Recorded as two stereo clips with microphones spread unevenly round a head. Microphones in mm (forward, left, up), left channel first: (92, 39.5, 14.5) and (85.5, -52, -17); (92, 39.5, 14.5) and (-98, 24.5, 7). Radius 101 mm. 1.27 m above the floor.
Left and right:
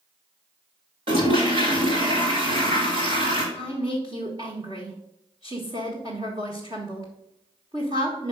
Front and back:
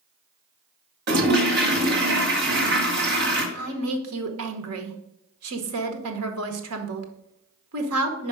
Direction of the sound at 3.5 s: 165° right.